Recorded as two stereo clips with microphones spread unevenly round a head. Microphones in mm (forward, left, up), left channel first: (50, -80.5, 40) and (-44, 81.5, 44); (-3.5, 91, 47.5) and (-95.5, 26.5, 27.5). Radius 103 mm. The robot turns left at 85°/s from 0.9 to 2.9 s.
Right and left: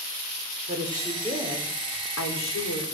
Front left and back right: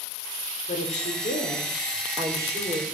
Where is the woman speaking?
55° left, 4.5 m; by 2.8 s 110° right, 4.5 m.